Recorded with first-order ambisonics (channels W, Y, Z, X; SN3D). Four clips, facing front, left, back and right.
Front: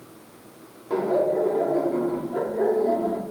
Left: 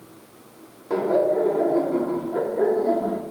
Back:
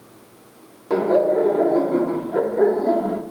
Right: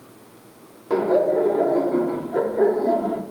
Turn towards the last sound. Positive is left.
turn(degrees=-160)